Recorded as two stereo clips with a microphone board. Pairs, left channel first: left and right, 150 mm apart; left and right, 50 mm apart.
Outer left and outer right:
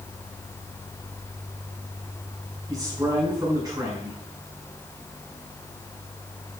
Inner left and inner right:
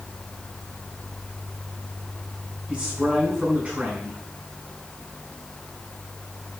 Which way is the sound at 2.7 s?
25° right (ahead or behind).